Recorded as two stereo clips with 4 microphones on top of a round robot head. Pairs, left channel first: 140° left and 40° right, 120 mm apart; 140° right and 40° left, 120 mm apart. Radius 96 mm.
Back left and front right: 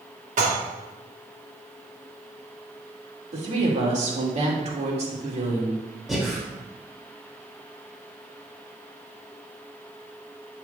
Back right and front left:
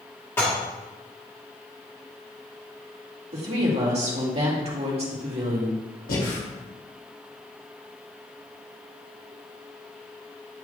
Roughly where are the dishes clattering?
Ahead right.